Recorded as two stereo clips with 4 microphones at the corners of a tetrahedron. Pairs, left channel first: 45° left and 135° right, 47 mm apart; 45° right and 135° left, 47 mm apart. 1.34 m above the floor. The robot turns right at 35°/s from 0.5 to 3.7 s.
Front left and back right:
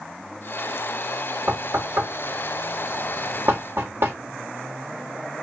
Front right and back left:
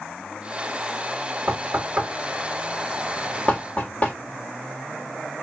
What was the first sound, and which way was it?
Knocking, 175° left.